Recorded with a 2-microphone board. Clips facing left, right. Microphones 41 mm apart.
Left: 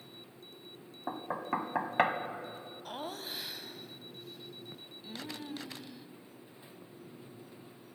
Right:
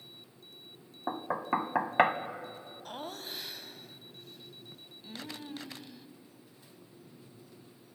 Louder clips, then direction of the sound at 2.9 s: Left 1 dB; 5° left (ahead or behind).